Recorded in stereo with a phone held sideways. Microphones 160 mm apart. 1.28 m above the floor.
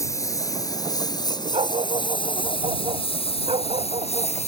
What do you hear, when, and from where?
0.0 s a lawn mower: 20° left (ahead or behind); by 4.5 s 45° left (ahead or behind)
1.5 s a dog barking: 40° right (ahead or behind)